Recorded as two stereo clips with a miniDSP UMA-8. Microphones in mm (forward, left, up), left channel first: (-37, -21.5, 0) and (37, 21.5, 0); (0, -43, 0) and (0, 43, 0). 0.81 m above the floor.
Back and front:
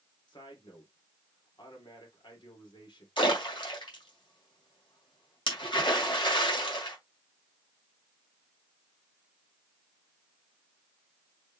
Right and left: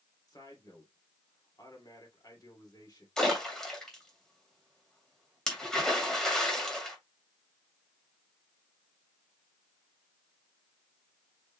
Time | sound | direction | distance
0.3 | a man speaking | 130° right | 2.5 m
3.2 | a splash | 175° right | 2 m